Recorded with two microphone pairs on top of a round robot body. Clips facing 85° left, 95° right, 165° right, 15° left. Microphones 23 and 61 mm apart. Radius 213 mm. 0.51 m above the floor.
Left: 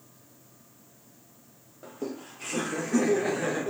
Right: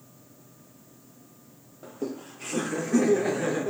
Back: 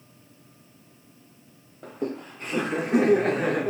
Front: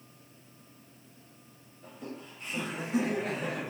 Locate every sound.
1.8 s laughter: 170° left, 2 m